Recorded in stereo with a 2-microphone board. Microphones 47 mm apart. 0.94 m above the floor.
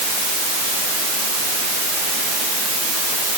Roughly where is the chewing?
No chewing in this recording.